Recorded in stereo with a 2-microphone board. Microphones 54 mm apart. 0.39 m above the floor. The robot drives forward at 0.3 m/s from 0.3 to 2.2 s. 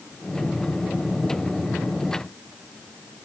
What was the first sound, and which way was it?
Only background noise.